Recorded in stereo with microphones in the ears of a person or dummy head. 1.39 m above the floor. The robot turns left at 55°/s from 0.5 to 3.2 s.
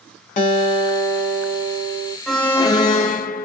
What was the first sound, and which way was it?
A guitar, 55° left.